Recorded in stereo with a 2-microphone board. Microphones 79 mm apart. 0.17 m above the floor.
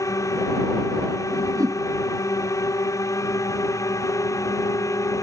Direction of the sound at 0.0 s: 45° left (ahead or behind).